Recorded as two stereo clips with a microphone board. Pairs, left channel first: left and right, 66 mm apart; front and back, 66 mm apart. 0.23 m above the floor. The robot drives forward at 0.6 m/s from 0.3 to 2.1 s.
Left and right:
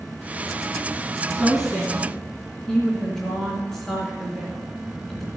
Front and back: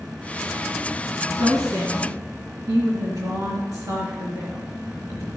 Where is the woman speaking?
170° left, 2.5 m.